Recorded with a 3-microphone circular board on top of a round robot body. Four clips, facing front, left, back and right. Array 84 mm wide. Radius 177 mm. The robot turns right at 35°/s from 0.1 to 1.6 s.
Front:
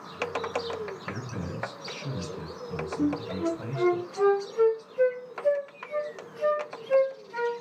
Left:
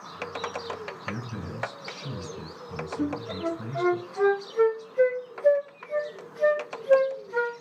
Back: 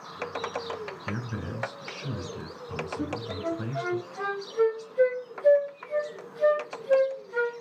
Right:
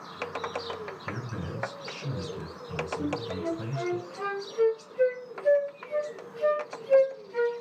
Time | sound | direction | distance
1.1 | a man speaking | 175° left | 5 m
3.0 | a flute | 110° left | 2.5 m